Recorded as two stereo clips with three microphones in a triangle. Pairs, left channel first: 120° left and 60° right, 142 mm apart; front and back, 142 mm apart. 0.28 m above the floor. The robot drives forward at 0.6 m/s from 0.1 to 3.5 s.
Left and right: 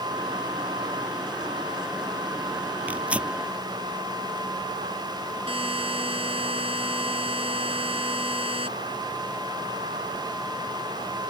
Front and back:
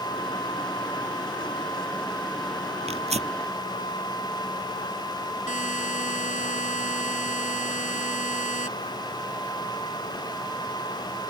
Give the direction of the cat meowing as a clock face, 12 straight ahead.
No cat meowing in this recording.